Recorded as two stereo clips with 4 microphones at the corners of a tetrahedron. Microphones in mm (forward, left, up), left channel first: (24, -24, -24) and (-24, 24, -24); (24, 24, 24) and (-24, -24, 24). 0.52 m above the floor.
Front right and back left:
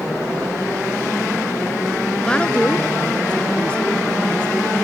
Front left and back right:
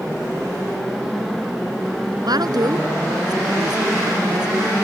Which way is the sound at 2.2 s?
120° right.